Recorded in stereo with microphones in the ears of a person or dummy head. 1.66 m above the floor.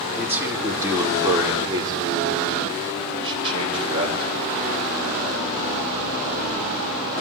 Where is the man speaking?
10° right (ahead or behind), 3.5 m; by 4.5 s 30° right (ahead or behind), 6 m.